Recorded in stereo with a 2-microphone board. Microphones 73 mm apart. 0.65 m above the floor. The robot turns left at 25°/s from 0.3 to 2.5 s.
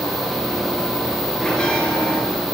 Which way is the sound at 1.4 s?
10° left (ahead or behind).